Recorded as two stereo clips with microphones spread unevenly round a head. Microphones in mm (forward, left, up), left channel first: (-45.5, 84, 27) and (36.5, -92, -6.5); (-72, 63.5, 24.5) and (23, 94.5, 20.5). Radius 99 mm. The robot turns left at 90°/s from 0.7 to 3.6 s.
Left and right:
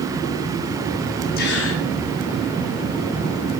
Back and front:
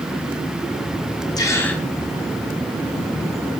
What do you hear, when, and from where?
1.4 s a gasp: 155° left, 9.5 m; by 1.8 s 110° left, 9.5 m